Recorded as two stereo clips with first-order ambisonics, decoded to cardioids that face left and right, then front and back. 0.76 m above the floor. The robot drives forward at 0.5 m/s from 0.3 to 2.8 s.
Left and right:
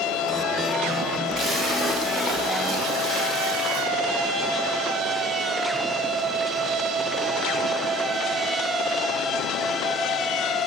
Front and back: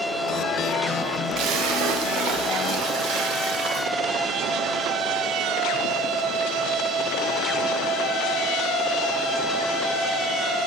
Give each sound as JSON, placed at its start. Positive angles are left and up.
{"t": 1.4, "sound": "a splash", "azimuth_deg": -155, "distance_m": 0.9}